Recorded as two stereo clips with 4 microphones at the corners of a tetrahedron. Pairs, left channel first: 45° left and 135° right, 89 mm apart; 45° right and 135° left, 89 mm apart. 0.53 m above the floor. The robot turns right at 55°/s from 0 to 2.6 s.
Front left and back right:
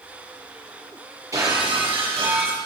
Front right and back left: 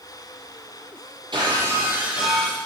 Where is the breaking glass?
170° left, 6.5 m; by 2.6 s 125° right, 6.5 m.